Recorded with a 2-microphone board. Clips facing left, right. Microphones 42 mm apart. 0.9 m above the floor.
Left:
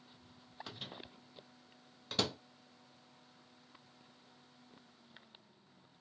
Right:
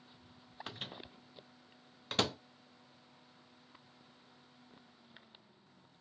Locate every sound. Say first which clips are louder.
0.7 s a microwave: right 3 dB; 40° right (ahead or behind), 0.7 m